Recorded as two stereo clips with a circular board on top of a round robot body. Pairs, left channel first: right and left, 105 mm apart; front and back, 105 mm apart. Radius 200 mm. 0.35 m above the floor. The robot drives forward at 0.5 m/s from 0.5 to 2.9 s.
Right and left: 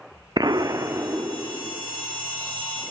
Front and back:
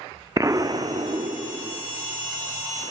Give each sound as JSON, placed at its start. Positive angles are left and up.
{"t": 0.4, "sound": "an explosion", "azimuth_deg": 130, "distance_m": 0.6}